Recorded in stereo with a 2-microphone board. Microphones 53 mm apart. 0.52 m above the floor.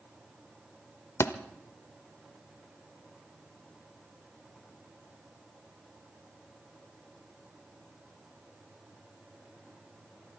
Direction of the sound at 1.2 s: 65° left (ahead or behind).